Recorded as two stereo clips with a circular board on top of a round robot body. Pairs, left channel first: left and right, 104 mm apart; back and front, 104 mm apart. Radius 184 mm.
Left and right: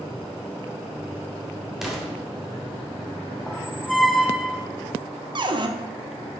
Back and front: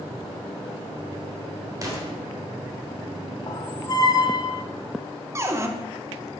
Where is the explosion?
5° right, 1.6 m.